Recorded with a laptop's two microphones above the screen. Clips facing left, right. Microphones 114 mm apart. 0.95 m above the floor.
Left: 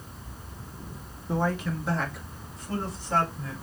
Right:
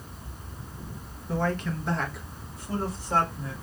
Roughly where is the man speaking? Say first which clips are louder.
Left 1 dB; centre.